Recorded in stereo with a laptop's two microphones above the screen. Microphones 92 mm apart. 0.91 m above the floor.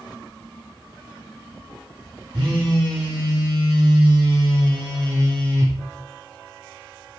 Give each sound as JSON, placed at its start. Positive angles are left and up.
{"t": 2.3, "sound": "a phone buzzing", "side_deg": -50, "distance_m": 1.3}